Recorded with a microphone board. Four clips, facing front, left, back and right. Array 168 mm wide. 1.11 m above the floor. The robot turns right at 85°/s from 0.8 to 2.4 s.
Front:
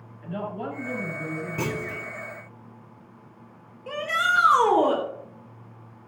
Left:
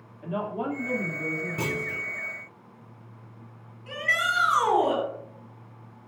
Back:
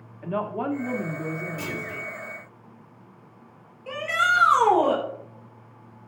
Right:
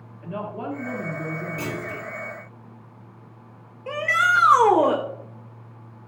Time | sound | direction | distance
0.2 | a woman speaking | 170° left | 2.5 m
1.6 | a clunk | 15° left | 1.8 m
3.9 | a shout | 80° right | 3.5 m